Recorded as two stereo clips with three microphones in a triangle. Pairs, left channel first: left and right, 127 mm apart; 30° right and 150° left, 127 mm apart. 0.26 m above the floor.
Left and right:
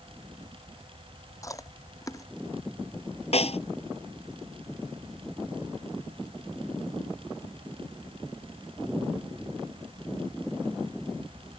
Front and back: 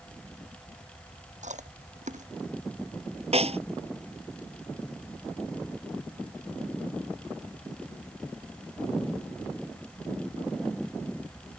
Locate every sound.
1.4 s chewing: 155° left
3.3 s a snare drum: 120° left